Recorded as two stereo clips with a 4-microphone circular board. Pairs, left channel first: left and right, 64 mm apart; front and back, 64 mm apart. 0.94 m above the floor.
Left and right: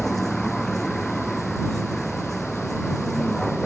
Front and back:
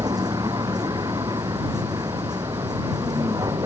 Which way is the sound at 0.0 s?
175° left.